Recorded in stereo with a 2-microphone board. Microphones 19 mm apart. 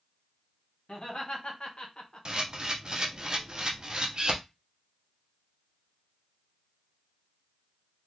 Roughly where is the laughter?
Left.